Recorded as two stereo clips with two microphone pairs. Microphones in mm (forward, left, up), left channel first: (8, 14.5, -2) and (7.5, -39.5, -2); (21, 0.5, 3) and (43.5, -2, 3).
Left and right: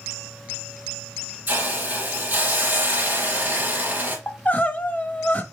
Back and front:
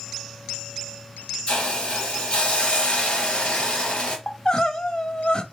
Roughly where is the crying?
Behind left.